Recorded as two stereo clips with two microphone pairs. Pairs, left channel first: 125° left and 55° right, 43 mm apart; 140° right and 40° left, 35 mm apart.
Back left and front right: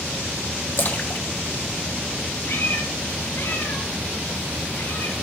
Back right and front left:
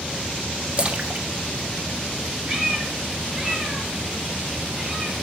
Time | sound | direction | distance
0.8 | a splash | 90° left | 1.3 m
2.5 | a cat meowing | 110° left | 6 m